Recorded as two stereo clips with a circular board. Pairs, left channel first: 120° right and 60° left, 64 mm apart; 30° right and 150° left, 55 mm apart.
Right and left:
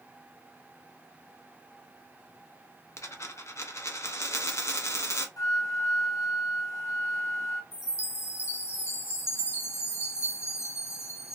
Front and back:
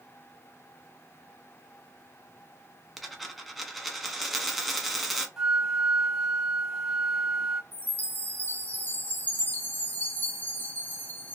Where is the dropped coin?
120° right, 0.7 m.